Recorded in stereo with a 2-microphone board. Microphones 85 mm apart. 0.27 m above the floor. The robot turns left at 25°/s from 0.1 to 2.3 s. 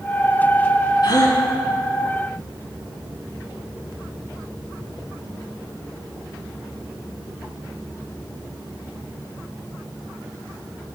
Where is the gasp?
55° left (ahead or behind), 1.9 m; by 1.4 s 50° left (ahead or behind), 1.9 m.